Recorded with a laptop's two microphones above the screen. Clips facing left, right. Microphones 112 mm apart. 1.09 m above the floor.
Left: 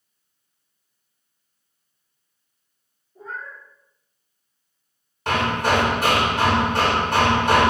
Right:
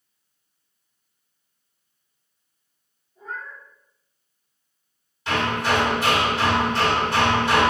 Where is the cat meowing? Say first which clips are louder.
Even; 75° left (ahead or behind), 3 m.